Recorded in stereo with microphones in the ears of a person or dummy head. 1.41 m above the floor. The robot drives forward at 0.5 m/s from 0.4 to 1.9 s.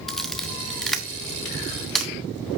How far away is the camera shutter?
About 0.6 m.